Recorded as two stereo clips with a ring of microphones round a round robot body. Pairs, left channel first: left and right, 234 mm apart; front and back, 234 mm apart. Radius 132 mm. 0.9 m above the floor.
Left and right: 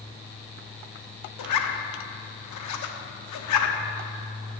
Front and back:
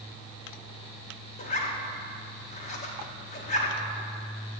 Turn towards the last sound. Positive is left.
turn(degrees=65)